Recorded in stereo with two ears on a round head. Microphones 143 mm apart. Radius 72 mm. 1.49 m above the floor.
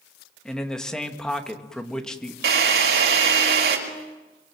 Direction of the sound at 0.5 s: 5° left (ahead or behind).